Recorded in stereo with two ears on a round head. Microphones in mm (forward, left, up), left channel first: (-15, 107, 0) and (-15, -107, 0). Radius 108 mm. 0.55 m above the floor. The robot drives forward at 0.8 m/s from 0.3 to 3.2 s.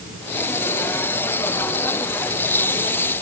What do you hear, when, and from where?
Only background noise.